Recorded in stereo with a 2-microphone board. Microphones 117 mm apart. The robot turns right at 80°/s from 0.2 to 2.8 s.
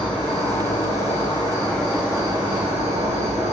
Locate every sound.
0.0 s an insect: 45° left, 5.5 m; by 3.5 s 110° right, 5.5 m